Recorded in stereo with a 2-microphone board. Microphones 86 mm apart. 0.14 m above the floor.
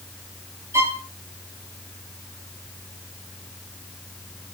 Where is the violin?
30° right (ahead or behind), 2.5 m.